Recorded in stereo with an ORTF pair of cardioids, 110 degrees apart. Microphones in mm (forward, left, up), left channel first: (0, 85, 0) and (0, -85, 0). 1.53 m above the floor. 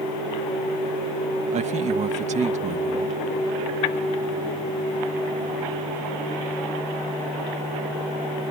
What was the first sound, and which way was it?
A man speaking, 45° right.